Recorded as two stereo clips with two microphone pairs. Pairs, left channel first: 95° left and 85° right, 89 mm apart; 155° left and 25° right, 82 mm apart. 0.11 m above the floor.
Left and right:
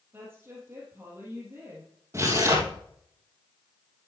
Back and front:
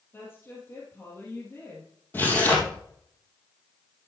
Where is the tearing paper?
140° right, 3 m.